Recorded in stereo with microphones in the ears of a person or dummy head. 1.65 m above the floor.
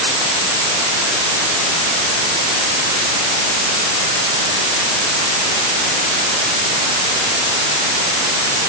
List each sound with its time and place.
Only background noise.